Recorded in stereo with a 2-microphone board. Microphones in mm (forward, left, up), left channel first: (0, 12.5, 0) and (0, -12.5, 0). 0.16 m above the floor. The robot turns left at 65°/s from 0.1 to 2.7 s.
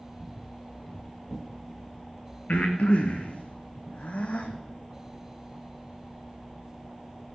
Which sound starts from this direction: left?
Breathing, at 2.5 s.